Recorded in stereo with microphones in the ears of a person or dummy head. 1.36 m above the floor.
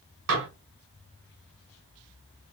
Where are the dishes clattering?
60° right (ahead or behind), 1.8 m.